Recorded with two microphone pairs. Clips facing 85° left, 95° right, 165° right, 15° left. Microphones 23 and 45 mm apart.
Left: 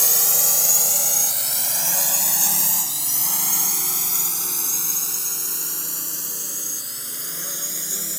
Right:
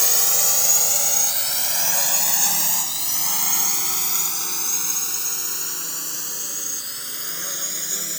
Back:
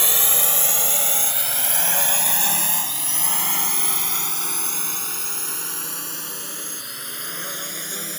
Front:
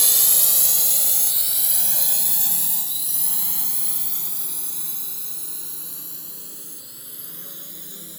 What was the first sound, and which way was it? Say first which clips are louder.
A drone: right 1 dB, back 4 dB; 170° right.